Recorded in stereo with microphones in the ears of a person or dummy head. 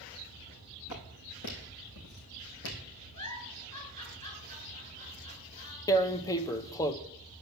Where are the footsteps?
70° left (ahead or behind), 4 m; by 2.8 s 65° left (ahead or behind), 3 m.